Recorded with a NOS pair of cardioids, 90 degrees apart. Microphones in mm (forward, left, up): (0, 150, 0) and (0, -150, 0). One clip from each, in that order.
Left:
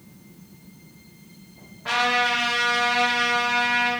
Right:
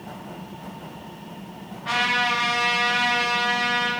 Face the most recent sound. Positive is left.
turn(degrees=35)